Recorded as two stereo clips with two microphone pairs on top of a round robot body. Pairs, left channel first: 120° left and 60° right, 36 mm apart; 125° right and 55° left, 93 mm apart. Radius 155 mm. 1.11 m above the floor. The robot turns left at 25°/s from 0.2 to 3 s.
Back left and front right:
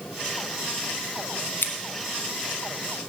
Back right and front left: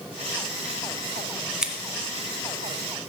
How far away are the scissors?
About 0.7 m.